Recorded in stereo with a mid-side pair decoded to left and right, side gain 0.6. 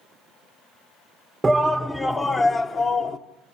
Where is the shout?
15° right, 0.6 m; by 3.2 s 45° left, 1.0 m.